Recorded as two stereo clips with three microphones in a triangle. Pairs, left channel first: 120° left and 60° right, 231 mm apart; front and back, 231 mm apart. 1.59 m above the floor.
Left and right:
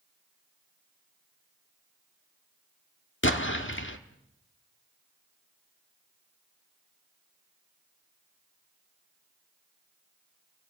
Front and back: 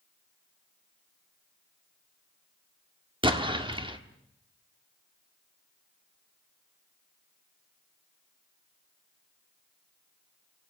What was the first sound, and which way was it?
An explosion, 115° left.